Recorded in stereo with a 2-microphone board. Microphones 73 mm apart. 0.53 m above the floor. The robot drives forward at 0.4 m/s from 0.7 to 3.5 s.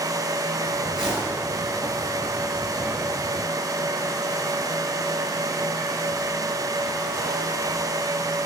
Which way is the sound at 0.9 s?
10° right (ahead or behind).